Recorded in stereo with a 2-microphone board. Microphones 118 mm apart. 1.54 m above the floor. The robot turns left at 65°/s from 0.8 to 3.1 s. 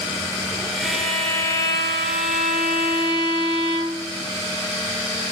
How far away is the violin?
About 1.9 m.